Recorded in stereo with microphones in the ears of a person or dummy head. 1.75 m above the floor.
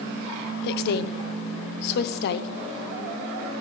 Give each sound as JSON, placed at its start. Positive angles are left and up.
{"t": 0.6, "sound": "a woman speaking", "side_deg": 55, "distance_m": 0.8}